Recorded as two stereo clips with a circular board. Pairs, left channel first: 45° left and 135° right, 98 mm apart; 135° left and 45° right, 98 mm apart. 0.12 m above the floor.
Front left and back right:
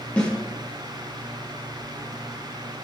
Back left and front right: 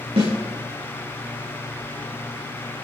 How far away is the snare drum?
About 7.5 m.